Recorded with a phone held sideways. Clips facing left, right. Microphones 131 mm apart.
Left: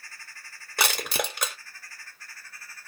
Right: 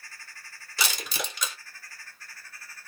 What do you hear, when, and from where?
0.8 s crushing: 65° left (ahead or behind), 0.9 m